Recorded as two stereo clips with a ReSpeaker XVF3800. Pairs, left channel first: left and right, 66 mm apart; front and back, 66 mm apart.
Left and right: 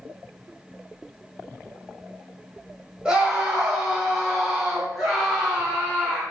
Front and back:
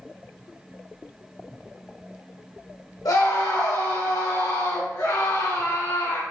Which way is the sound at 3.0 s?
15° right.